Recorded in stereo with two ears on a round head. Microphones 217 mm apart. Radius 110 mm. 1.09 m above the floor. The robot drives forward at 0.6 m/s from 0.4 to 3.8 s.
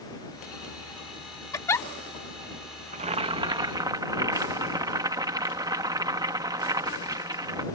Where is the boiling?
30° right (ahead or behind); by 7.6 s 15° right (ahead or behind).